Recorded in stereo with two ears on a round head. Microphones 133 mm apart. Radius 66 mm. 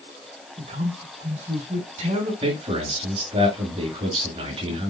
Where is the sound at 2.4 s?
40° right (ahead or behind), 5.5 m.